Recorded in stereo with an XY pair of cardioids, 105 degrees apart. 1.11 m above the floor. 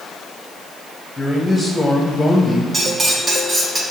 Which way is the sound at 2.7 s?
40° right.